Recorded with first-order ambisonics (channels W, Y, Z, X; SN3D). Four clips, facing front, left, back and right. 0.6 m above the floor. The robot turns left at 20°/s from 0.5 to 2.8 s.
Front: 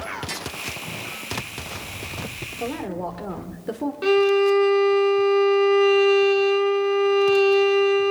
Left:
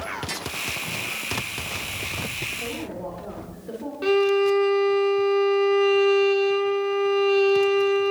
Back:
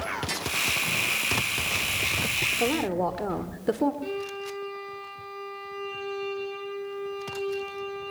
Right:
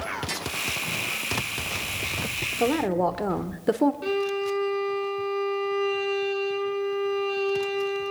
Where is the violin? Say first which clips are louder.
Left 7 dB, front 16 dB; 25° left, 1.6 m.